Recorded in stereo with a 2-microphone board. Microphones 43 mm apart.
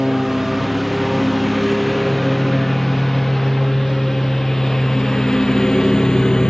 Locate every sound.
0.0 s a lawn mower: 5° right (ahead or behind); by 6.5 s 15° left (ahead or behind)